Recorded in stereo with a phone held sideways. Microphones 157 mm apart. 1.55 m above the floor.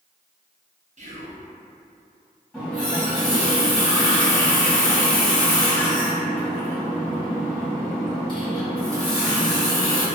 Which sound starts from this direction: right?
Whispering, at 1.0 s.